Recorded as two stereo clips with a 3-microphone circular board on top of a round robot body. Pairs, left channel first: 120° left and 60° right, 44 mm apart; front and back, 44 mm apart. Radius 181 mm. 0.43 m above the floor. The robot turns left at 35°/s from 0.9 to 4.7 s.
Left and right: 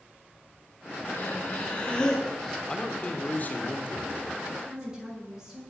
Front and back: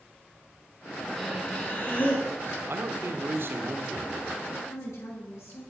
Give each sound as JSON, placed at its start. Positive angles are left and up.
{"t": 1.1, "sound": "breathing", "azimuth_deg": 80, "distance_m": 4.0}
{"t": 2.7, "sound": "a man speaking", "azimuth_deg": -170, "distance_m": 2.5}
{"t": 4.5, "sound": "a woman speaking", "azimuth_deg": 20, "distance_m": 8.5}